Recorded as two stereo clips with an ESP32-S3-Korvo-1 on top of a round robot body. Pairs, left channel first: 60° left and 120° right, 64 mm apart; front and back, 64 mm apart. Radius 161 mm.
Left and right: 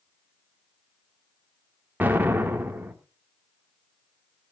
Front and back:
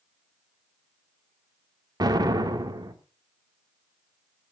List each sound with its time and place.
2.0 s an explosion: 175° left, 2 m